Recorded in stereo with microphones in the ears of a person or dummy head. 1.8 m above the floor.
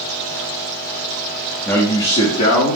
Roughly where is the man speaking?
Centre.